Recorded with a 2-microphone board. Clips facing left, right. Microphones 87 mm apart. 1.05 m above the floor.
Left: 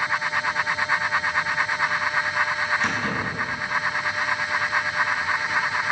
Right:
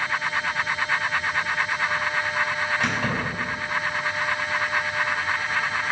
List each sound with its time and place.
2.8 s keys jangling: 65° right (ahead or behind), 4 m